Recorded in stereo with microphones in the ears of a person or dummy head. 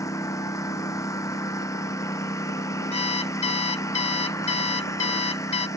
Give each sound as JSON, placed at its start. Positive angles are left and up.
{"t": 0.0, "sound": "a lawn mower", "side_deg": 15}
{"t": 2.9, "sound": "an alarm clock", "side_deg": 30}